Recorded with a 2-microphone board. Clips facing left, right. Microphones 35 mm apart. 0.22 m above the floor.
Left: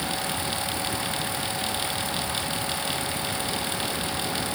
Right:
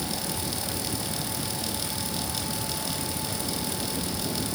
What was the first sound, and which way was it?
Only background noise.